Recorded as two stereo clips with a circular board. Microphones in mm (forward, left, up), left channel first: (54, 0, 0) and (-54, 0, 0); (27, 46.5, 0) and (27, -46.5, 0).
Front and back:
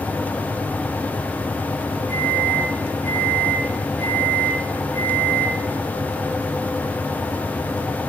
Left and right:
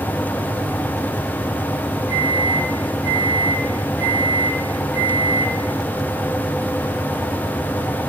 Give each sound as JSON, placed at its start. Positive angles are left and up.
{"t": 2.1, "sound": "a microwave", "azimuth_deg": -10, "distance_m": 7.0}